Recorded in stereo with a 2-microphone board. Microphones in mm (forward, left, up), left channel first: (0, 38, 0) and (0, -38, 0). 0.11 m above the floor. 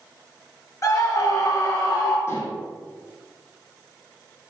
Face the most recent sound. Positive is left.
turn(degrees=35)  # may be behind; listen again after turning